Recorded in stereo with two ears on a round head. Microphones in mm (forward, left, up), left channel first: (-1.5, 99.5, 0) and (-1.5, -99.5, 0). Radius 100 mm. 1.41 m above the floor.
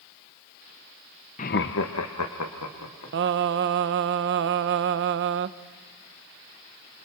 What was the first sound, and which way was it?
Laughter, 30° left (ahead or behind).